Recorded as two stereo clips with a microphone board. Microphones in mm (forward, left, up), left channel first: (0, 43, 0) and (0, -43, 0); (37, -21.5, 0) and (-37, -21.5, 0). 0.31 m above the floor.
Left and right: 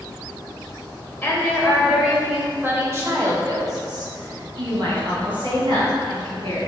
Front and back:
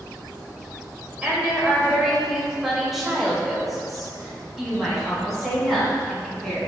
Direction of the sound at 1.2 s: 120° left.